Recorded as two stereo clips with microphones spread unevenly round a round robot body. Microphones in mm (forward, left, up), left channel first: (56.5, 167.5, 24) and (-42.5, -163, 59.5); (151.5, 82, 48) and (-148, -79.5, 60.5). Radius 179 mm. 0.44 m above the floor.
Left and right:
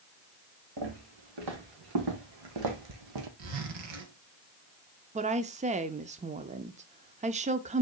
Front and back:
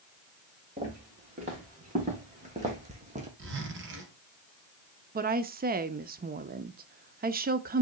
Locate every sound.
0.8 s footsteps: 80° right, 4 m
3.4 s a zipper: 95° right, 2.5 m
5.2 s a woman speaking: 160° right, 0.7 m